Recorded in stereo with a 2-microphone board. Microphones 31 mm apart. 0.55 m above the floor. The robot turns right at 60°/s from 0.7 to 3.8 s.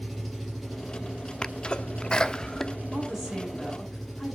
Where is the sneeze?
25° left (ahead or behind), 0.8 m; by 2.8 s 15° left (ahead or behind), 0.8 m.